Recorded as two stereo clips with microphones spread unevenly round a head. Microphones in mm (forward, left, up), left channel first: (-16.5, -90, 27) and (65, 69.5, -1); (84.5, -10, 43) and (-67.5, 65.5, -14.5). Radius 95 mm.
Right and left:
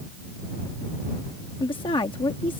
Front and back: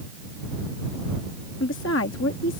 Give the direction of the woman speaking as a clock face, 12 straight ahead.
2 o'clock.